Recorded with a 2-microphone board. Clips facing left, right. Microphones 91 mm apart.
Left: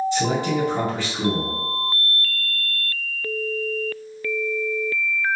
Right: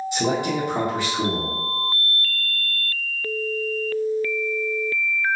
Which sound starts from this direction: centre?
A man speaking, at 0.1 s.